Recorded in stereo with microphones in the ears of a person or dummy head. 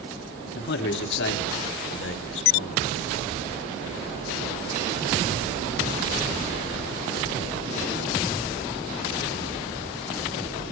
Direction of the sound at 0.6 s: 60° left (ahead or behind).